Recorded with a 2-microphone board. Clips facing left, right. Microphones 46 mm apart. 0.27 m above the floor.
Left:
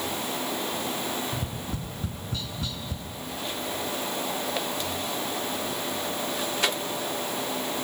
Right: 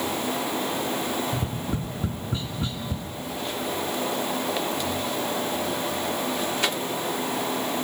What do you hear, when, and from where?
1.3 s tapping: 25° right (ahead or behind), 2 m